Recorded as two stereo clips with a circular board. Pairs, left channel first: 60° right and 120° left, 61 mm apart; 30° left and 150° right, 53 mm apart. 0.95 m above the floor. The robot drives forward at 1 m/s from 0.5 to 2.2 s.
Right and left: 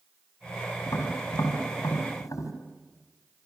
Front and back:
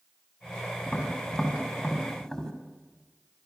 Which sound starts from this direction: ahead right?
Tapping, at 0.9 s.